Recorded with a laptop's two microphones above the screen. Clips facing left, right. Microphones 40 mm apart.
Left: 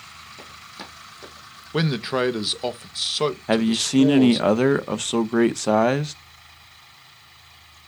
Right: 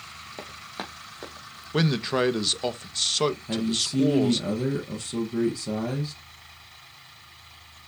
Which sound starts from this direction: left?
A man speaking, at 3.5 s.